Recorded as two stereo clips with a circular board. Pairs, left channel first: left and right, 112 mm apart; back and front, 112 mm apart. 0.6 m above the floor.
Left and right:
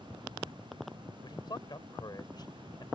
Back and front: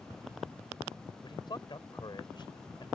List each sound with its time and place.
1.2 s a man speaking: 135° left